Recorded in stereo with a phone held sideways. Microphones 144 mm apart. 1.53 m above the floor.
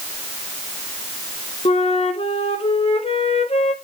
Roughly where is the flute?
Left.